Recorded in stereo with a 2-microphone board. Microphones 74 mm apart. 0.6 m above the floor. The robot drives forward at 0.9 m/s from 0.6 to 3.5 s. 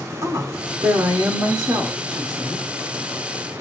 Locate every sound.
0.2 s a woman speaking: 50° right (ahead or behind), 2.0 m; by 2.6 s 40° right (ahead or behind), 2 m